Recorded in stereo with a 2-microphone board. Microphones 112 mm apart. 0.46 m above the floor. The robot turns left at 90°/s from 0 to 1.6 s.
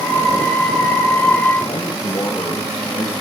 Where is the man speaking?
45° left (ahead or behind), 4.5 m.